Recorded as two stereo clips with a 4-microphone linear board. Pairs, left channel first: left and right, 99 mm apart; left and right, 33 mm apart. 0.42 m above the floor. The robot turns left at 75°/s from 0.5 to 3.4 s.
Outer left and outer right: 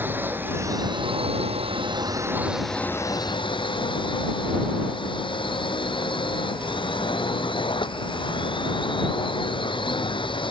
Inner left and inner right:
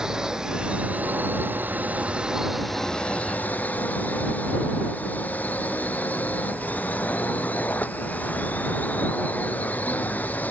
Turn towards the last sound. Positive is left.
turn(degrees=120)